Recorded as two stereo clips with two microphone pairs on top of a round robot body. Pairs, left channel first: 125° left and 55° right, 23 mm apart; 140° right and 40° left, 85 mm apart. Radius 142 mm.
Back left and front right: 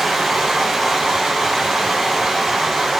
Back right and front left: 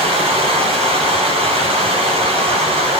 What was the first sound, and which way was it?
Running water, 30° left.